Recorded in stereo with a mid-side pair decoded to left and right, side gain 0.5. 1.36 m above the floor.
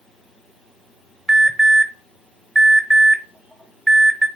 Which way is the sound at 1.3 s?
5° right.